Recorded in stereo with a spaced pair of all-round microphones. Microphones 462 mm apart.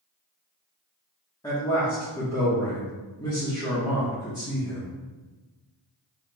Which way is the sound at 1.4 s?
10° left (ahead or behind).